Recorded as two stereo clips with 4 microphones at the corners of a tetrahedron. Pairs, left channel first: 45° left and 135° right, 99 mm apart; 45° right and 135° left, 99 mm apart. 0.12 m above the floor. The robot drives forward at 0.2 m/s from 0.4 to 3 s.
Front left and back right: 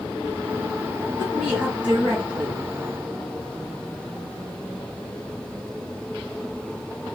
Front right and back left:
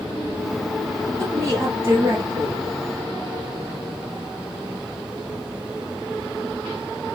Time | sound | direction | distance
1.2 | a woman speaking | 155° left | 1.9 m